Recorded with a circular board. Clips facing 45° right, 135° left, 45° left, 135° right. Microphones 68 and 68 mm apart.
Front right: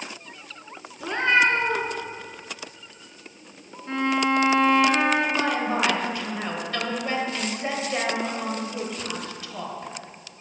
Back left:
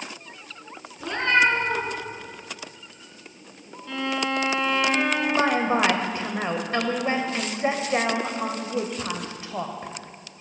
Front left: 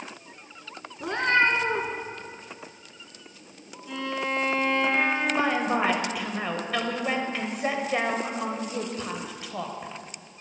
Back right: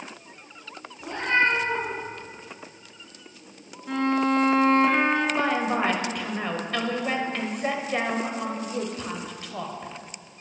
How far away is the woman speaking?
About 0.9 m.